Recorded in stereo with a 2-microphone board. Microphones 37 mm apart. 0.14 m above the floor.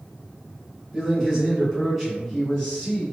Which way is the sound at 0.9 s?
15° right (ahead or behind).